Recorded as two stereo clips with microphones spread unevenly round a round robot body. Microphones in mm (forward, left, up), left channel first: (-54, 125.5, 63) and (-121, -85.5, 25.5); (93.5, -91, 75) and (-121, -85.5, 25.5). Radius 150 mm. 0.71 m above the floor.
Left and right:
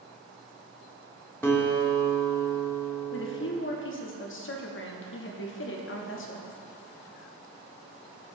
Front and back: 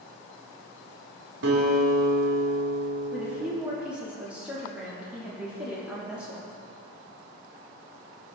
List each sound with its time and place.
1.4 s a guitar: 155° left, 1.7 m
3.1 s a woman speaking: 100° left, 1.2 m